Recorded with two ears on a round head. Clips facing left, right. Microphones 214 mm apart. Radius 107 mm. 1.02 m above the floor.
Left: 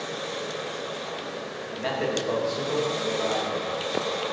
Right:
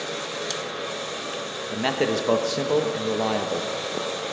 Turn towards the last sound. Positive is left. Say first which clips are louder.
# right 4 dB
turn(degrees=-60)  # may be behind; listen again after turning